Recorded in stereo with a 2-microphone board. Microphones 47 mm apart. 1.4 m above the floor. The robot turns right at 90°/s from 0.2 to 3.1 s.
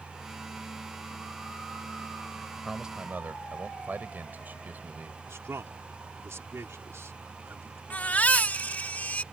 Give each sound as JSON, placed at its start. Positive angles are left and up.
{"t": 2.6, "sound": "a man speaking", "azimuth_deg": 180}
{"t": 5.3, "sound": "a man speaking", "side_deg": -65}
{"t": 7.9, "sound": "a baby crying", "side_deg": 35}